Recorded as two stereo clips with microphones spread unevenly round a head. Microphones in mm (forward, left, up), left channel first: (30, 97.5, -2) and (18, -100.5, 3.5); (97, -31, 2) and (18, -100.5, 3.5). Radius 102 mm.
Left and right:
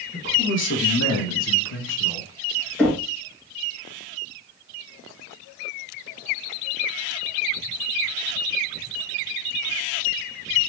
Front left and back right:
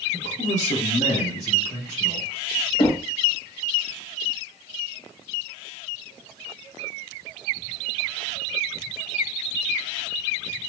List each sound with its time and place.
0.1 s a man speaking: 45° left, 1.2 m; by 2.3 s 135° left, 1.1 m
2.8 s knocking: straight ahead, 0.9 m